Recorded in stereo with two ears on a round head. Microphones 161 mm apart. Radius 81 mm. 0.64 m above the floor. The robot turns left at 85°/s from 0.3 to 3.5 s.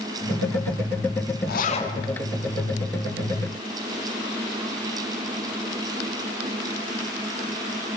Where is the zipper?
60° left, 3 m; by 1.9 s 20° left, 3 m.